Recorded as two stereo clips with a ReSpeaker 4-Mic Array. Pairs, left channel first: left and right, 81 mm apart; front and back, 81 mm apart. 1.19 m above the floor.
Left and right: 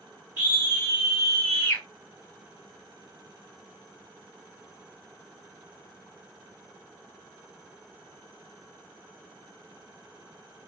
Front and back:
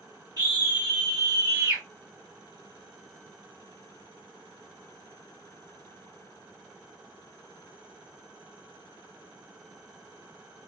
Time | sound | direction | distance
0.4 | a scream | 145° right | 1.1 m